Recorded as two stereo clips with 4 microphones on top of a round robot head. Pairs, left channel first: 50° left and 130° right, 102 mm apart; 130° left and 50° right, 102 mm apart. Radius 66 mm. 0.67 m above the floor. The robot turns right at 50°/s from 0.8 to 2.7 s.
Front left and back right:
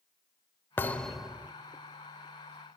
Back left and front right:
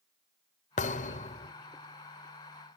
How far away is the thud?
About 0.8 m.